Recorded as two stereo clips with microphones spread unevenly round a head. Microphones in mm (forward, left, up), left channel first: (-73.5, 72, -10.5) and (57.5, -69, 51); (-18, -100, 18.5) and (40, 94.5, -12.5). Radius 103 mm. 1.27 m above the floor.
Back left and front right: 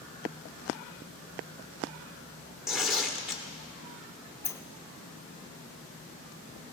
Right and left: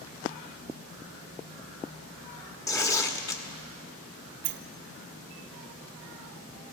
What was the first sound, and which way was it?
Tearing paper, 85° right.